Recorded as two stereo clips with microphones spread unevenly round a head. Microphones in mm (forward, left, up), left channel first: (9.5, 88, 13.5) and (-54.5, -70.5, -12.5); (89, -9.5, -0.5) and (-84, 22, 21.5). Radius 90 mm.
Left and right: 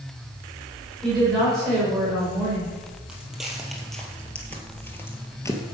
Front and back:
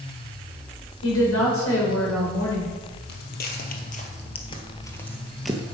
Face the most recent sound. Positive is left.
turn(degrees=105)